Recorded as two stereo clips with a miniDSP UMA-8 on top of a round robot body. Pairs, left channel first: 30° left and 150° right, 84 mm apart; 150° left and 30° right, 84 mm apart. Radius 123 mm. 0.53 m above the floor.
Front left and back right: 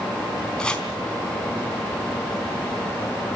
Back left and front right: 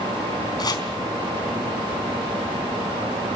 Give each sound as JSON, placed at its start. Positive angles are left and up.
{"t": 0.6, "sound": "chopping", "azimuth_deg": 110, "distance_m": 4.0}